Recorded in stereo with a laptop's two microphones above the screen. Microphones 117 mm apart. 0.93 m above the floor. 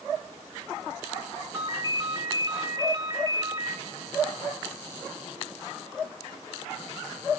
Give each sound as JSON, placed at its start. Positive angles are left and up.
{"t": 1.5, "sound": "a ringtone", "side_deg": -35, "distance_m": 1.4}